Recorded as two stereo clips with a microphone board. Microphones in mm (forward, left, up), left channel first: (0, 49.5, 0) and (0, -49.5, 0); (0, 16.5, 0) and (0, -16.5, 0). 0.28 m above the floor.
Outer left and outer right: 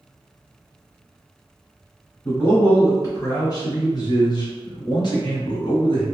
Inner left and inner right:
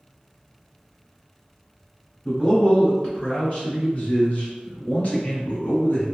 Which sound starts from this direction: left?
A man speaking, at 2.2 s.